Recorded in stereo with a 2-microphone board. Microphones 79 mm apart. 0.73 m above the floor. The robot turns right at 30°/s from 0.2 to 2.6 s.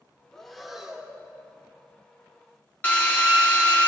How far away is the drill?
About 1.0 m.